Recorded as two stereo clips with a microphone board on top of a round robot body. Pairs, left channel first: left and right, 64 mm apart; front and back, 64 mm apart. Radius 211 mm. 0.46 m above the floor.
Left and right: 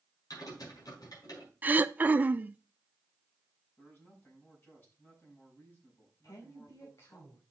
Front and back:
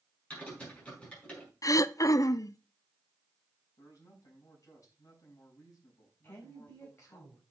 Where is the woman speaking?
60° left, 4.5 m.